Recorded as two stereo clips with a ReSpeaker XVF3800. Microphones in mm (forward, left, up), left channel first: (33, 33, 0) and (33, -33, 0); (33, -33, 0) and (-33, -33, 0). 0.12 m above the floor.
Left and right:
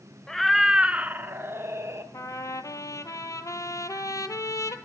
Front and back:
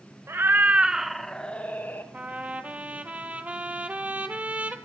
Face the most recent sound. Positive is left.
turn(degrees=115)